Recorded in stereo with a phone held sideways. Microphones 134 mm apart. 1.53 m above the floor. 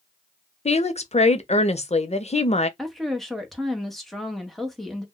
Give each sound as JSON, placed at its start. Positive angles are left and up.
{"t": 0.7, "sound": "a woman speaking", "side_deg": 55, "distance_m": 0.5}
{"t": 2.8, "sound": "a woman speaking", "side_deg": 0, "distance_m": 0.9}